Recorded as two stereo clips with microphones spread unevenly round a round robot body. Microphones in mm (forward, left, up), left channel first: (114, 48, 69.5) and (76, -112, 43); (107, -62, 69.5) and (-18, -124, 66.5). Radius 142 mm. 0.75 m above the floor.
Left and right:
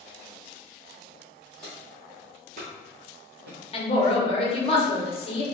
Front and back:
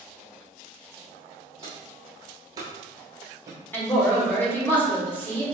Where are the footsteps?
145° left, 0.8 m; by 3.6 s 90° right, 1.2 m.